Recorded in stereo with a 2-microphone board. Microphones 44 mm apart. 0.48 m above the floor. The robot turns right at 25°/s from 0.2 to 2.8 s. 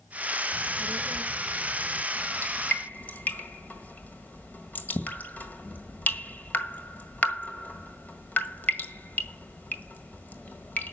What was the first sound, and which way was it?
A child speaking, 75° right.